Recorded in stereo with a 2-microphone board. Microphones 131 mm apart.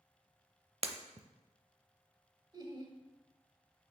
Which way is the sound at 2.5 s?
30° right (ahead or behind).